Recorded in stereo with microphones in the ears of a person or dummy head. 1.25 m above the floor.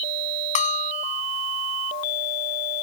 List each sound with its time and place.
0.6 s a bell: 40° left (ahead or behind)